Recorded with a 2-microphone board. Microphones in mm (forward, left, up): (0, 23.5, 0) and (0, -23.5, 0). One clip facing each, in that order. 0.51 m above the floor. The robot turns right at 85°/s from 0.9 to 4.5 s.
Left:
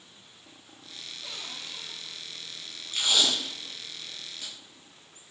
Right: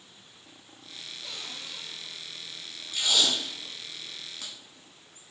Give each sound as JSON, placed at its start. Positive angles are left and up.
{"t": 1.2, "sound": "a cupboard door", "side_deg": 5, "distance_m": 0.8}
{"t": 2.9, "sound": "tape being pulled", "side_deg": 60, "distance_m": 1.3}